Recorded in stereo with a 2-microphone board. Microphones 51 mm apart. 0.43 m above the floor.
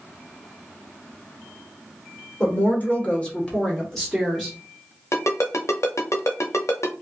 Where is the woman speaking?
35° left (ahead or behind), 1.3 m; by 4.5 s 5° right (ahead or behind), 1.1 m.